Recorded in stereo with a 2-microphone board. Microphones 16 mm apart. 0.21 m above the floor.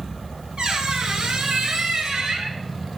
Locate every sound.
0.6 s a squeak: 65° right (ahead or behind), 1.1 m